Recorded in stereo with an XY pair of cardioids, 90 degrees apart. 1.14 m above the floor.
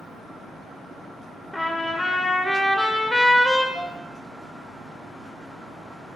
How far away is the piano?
About 2.5 m.